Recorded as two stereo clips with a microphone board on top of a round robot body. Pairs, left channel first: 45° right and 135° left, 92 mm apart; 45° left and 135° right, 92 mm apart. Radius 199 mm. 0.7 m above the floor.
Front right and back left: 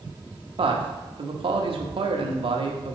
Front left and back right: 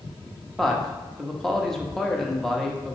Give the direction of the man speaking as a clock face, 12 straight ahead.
8 o'clock.